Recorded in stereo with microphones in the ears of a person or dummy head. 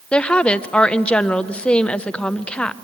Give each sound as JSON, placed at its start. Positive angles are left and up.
{"t": 0.1, "sound": "a woman speaking", "side_deg": 10, "distance_m": 0.6}